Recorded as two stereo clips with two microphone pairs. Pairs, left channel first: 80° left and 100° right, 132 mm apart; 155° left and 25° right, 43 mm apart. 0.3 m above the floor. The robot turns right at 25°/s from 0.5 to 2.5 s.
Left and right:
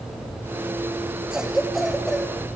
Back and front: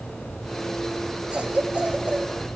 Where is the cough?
20° right, 1.5 m; by 2.3 s 5° left, 1.5 m.